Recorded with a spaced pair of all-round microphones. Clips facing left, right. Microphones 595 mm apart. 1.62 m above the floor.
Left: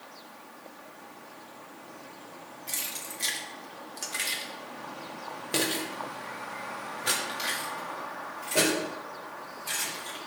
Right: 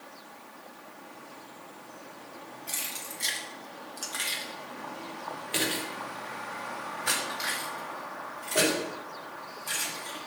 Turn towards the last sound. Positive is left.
turn(degrees=45)  # may be behind; listen again after turning